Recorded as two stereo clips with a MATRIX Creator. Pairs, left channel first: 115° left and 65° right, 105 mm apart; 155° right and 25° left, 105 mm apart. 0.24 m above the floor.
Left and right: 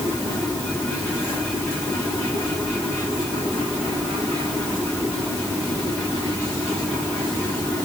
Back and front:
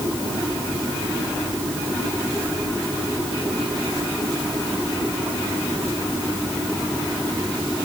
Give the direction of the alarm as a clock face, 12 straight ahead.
I don't hear an alarm.